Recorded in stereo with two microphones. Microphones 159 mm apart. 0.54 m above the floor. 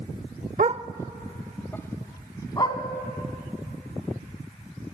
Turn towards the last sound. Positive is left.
turn(degrees=25)  # may be behind; listen again after turning